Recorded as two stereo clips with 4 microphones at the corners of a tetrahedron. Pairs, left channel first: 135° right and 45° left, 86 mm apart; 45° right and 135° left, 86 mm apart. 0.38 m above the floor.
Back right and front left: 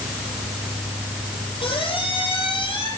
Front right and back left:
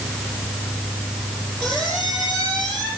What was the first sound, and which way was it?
A squeak, 125° right.